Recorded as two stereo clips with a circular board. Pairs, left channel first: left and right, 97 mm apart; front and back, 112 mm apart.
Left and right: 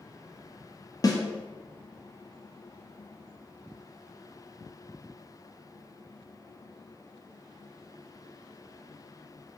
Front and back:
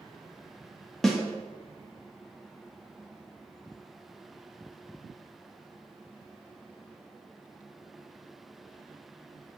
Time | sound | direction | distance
1.0 | a snare drum | 85° left | 0.6 m